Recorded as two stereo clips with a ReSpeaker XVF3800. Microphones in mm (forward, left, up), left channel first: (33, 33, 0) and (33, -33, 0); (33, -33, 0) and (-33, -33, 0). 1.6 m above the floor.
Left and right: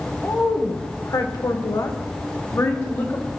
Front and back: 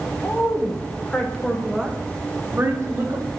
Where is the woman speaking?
45° left, 1.2 m; by 3.3 s 135° left, 1.3 m.